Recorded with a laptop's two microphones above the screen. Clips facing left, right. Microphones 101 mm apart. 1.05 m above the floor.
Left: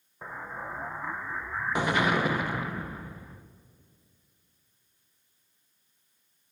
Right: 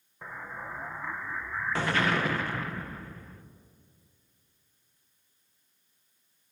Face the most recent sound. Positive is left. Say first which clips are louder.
# left 2 dB
turn(degrees=15)  # may be behind; listen again after turning